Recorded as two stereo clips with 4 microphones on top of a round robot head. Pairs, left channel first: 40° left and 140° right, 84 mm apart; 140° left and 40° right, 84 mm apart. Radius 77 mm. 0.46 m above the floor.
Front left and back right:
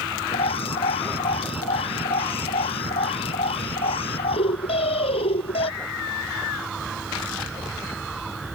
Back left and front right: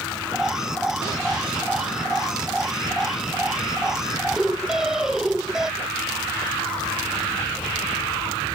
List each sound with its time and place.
0.3 s an alarm: 40° left